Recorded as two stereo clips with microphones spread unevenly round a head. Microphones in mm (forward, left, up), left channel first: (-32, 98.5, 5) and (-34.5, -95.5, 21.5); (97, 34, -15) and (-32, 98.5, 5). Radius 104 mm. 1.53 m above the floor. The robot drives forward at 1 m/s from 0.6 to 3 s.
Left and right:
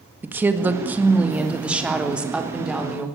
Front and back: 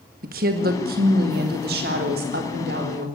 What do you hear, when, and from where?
0.2 s a woman speaking: 170° right, 1.9 m; by 3.1 s 175° right, 4.5 m